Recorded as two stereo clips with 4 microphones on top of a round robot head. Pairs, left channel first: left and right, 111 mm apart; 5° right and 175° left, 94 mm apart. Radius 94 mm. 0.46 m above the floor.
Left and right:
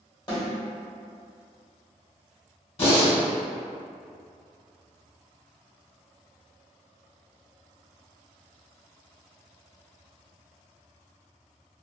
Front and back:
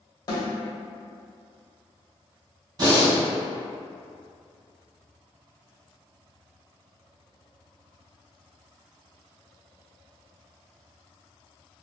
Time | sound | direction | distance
0.3 | a snare drum | 35° left | 1.6 m
2.8 | breathing | 130° left | 1.9 m